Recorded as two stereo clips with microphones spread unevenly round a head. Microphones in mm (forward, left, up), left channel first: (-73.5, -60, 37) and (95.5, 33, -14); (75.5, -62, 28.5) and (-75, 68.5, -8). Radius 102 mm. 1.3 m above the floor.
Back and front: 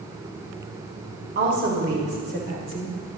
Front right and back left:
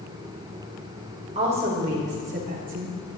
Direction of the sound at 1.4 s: 75° left.